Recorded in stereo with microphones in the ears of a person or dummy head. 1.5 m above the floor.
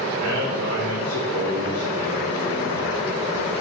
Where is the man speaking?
30° right (ahead or behind), 2 m.